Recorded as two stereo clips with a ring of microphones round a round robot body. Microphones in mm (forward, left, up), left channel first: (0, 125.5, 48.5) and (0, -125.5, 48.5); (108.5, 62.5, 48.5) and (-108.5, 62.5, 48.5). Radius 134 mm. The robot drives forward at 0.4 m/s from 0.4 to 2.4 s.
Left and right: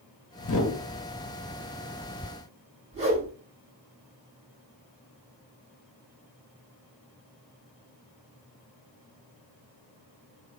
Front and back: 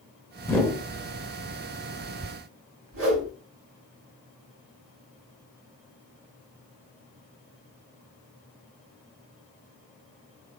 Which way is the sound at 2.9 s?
155° right.